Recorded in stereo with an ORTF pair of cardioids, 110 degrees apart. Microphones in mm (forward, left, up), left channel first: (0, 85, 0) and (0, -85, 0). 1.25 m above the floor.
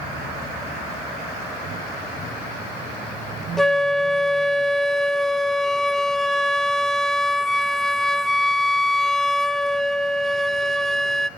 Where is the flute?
5° left, 0.6 m.